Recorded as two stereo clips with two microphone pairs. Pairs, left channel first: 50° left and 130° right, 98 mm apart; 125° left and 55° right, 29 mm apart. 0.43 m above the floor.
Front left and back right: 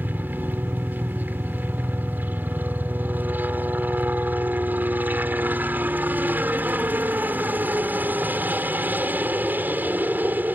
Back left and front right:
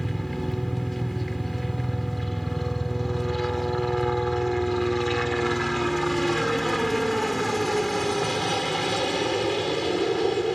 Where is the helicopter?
155° right.